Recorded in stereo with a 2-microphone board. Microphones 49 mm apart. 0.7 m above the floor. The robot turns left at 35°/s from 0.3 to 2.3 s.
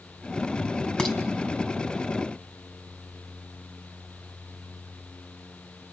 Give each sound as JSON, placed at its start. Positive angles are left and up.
{"t": 1.0, "sound": "dishes clattering", "side_deg": 15, "distance_m": 3.5}